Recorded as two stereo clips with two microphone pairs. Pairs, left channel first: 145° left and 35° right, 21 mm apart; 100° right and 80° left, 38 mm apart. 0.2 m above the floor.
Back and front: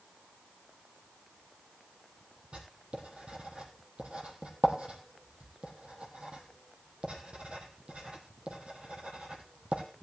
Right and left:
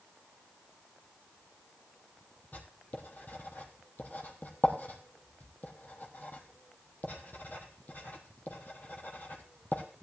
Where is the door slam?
I don't hear a door slam.